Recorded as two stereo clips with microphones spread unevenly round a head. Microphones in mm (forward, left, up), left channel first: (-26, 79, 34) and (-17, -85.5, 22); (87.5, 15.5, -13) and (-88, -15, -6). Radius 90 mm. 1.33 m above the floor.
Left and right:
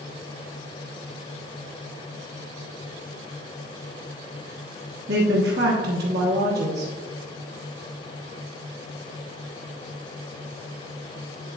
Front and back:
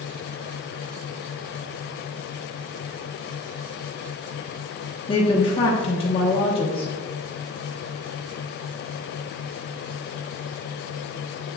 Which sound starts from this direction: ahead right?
A woman speaking, at 5.1 s.